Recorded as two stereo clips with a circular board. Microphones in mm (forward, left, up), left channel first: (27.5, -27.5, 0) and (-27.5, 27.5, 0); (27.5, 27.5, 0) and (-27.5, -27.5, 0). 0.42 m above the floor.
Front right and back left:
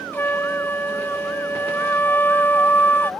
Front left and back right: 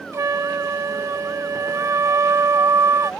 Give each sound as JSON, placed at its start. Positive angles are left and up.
{"t": 0.1, "sound": "a flute", "azimuth_deg": -100}